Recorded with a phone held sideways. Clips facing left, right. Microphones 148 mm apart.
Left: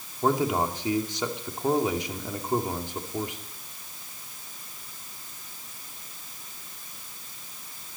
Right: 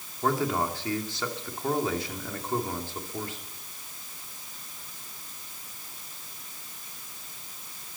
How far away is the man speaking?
About 2.5 m.